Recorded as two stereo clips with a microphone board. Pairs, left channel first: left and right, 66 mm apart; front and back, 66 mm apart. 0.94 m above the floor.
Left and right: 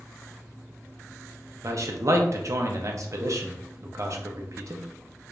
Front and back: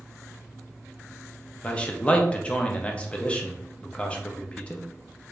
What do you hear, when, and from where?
1.6 s a man speaking: 65° right, 0.7 m